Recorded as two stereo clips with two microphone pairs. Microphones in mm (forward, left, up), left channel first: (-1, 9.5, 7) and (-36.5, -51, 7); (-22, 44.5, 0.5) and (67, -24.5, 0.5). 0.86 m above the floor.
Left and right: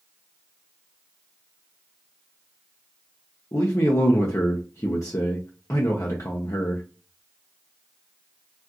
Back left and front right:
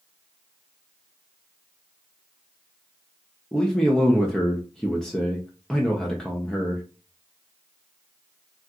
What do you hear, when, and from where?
3.5 s a man speaking: 60° left, 0.6 m